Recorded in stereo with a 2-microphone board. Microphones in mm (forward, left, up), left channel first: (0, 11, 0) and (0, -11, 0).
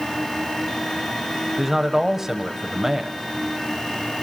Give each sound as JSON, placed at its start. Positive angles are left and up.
{"t": 1.6, "sound": "a man speaking", "side_deg": -15, "distance_m": 1.0}